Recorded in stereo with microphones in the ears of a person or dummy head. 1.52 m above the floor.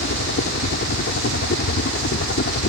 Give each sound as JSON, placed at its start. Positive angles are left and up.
{"t": 0.0, "sound": "a helicopter", "side_deg": 50}